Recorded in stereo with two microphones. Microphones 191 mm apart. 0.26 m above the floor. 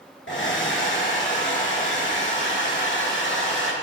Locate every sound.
0.3 s a hair dryer: 75° left (ahead or behind), 3.5 m